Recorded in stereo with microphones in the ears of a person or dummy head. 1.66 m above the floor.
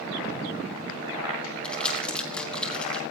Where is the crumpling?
5° left (ahead or behind), 1.7 m.